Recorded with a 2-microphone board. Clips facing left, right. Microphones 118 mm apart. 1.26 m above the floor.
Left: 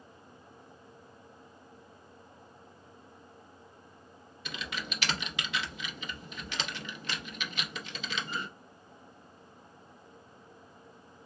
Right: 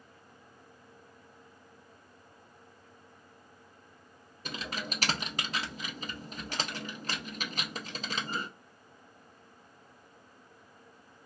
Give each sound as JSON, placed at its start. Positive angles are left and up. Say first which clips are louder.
{"t": 4.5, "sound": "typing on a keyboard", "louder": "right 2 dB", "side_deg": -40, "distance_m": 0.7}